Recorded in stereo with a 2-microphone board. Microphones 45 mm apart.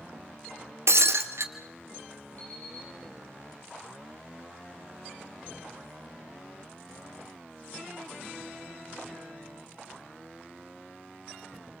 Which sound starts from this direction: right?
Breaking glass, at 0.9 s.